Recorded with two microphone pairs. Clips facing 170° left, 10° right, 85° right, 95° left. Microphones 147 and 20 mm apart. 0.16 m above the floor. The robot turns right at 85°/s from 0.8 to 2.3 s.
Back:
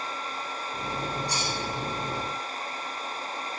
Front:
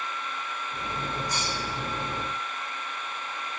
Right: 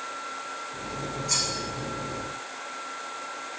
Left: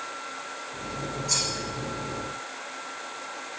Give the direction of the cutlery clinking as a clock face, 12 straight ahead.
6 o'clock.